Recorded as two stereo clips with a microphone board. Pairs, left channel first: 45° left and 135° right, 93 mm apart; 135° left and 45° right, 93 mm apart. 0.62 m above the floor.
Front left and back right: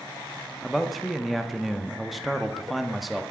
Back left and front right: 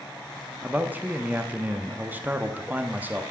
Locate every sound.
0.6 s a man speaking: 45° right, 0.7 m